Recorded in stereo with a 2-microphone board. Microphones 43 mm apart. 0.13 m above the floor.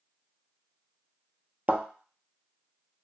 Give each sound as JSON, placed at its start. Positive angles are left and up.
{"t": 1.7, "sound": "a thud", "side_deg": -30, "distance_m": 0.5}